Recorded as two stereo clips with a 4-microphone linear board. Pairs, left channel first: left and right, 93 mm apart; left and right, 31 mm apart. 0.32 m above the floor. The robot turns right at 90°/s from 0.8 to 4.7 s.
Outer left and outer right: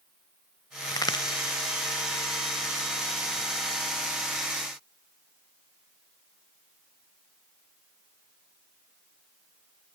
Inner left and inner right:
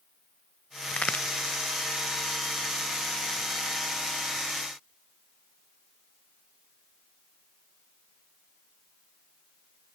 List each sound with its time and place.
0.9 s a crack: 40° left (ahead or behind), 0.7 m; by 1.2 s 50° left (ahead or behind), 0.7 m